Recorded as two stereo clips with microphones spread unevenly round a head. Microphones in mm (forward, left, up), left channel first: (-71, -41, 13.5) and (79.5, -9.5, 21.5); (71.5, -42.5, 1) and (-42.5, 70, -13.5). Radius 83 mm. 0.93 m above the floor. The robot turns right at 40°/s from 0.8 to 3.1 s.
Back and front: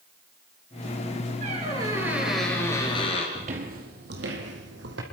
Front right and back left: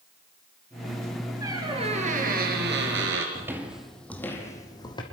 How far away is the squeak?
About 3.5 m.